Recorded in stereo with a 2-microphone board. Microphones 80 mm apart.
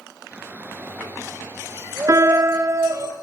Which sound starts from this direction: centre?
A shout, at 0.3 s.